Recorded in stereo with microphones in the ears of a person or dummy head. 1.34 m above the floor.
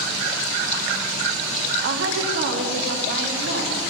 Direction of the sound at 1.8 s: 70° right (ahead or behind).